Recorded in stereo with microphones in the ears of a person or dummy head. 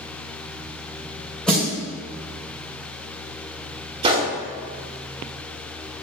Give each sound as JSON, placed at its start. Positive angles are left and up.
{"t": 1.5, "sound": "a snare drum", "side_deg": 5, "distance_m": 2.0}
{"t": 4.0, "sound": "a gunshot", "side_deg": -35, "distance_m": 1.2}